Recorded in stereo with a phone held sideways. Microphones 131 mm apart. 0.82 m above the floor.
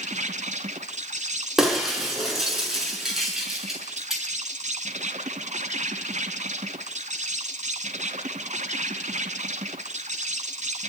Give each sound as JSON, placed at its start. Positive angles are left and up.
{"t": 0.0, "sound": "an insect", "side_deg": -65, "distance_m": 1.8}
{"t": 1.6, "sound": "breaking glass", "side_deg": -5, "distance_m": 6.5}